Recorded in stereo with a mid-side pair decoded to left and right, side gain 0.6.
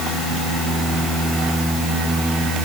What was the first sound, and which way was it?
Only background noise.